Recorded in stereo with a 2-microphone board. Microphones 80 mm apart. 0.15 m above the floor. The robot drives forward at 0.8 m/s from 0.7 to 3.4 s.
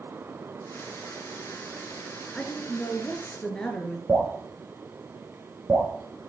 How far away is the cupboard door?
I don't hear a cupboard door.